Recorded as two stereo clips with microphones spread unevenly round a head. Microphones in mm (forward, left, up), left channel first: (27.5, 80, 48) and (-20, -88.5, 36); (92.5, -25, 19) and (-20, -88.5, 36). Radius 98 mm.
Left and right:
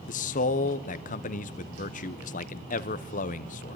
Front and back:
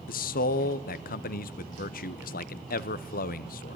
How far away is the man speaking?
About 0.8 m.